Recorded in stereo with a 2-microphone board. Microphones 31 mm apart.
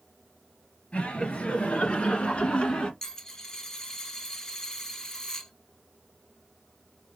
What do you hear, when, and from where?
0.9 s laughter: 45° left (ahead or behind), 2 m; by 2.9 s 30° left (ahead or behind), 1.4 m
3.0 s a dropped coin: 20° left (ahead or behind), 0.9 m